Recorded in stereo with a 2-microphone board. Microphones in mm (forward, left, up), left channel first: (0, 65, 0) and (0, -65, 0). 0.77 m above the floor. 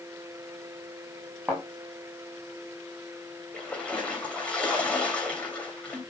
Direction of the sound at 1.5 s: Centre (ahead or behind).